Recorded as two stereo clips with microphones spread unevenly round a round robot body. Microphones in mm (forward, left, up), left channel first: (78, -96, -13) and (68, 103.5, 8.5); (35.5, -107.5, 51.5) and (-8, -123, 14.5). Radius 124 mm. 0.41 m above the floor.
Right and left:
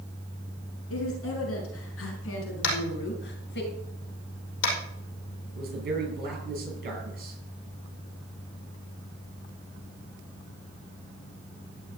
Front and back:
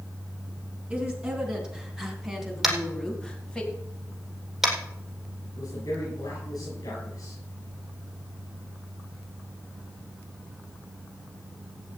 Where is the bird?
No bird in this recording.